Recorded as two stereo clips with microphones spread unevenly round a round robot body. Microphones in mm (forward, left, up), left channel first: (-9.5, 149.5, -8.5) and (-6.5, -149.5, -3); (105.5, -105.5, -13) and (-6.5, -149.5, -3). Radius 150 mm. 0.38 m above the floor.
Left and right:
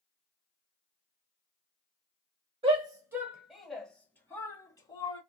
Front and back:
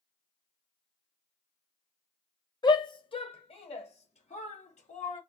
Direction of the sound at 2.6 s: 20° right.